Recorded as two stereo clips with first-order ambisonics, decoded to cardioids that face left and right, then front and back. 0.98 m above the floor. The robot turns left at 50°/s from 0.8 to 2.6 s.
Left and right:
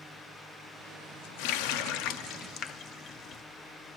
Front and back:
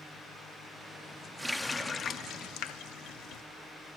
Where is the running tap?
95° left, 0.8 m; by 3.4 s 35° left, 0.8 m.